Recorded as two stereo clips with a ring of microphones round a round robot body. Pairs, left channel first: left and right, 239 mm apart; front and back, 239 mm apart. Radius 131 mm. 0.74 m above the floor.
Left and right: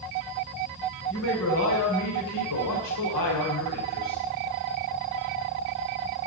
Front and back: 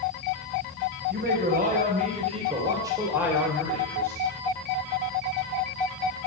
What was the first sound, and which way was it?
A man speaking, 130° left.